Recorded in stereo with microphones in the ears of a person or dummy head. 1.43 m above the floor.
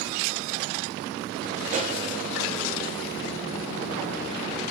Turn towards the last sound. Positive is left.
turn(degrees=-40)  # may be behind; listen again after turning